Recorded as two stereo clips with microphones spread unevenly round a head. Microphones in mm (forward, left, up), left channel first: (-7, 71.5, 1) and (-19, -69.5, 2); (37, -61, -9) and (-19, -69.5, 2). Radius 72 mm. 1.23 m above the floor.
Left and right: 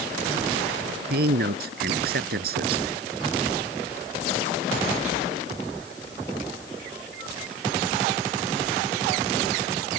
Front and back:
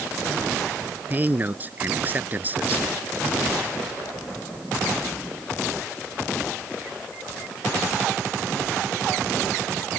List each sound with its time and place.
1.1 s a man speaking: 115° right